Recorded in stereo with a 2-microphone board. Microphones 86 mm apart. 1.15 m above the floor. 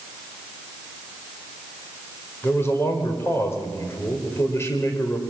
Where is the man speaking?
30° left (ahead or behind), 4.5 m.